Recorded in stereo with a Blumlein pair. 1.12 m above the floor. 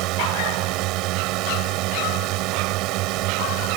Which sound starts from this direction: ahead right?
A drone, at 0.0 s.